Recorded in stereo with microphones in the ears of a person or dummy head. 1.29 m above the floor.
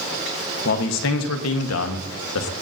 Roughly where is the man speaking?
Left.